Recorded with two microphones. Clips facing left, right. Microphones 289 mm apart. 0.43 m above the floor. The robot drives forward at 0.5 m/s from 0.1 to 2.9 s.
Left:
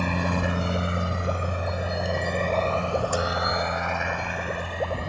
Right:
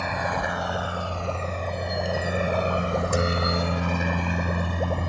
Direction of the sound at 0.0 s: 45° left (ahead or behind).